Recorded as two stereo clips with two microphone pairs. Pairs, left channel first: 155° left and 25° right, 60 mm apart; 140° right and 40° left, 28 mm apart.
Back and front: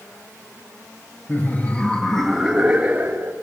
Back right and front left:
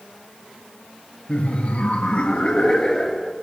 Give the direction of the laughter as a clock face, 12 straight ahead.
5 o'clock.